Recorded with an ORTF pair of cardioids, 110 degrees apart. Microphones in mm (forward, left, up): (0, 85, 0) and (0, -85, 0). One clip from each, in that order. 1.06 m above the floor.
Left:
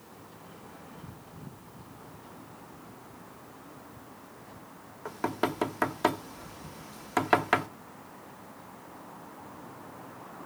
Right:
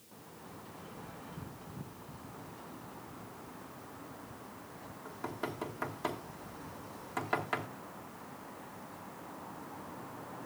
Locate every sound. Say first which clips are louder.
5.0 s knocking: left 10 dB; 55° left, 1.0 m